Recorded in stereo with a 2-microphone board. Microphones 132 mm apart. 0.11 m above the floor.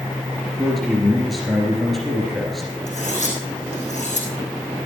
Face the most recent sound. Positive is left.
turn(degrees=65)  # may be behind; listen again after turning